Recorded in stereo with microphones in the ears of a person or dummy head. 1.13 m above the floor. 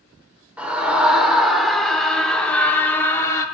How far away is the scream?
About 3.5 m.